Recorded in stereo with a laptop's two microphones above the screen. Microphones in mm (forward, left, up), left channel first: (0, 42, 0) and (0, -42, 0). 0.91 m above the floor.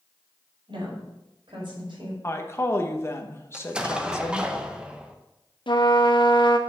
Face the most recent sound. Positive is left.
turn(degrees=70)  # may be behind; listen again after turning